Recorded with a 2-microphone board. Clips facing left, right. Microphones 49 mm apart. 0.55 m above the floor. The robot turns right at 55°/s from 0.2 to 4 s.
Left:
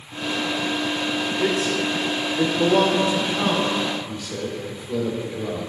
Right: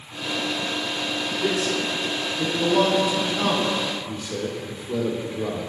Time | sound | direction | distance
1.4 | a man speaking | 40° left (ahead or behind) | 1.5 m